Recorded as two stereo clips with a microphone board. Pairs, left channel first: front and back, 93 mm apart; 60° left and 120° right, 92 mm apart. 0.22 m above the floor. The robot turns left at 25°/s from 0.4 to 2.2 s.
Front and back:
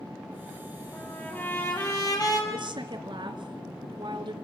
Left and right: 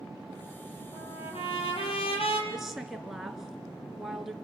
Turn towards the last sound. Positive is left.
turn(degrees=155)